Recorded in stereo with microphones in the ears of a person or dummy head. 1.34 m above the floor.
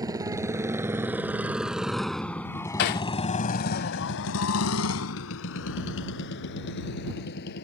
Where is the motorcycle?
15° right (ahead or behind); by 7.7 s 55° left (ahead or behind).